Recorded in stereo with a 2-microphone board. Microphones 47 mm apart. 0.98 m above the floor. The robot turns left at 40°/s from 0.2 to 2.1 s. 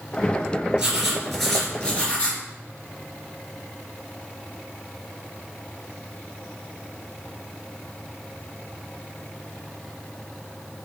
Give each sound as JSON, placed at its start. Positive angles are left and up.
{"t": 0.8, "sound": "writing", "azimuth_deg": -160, "distance_m": 2.5}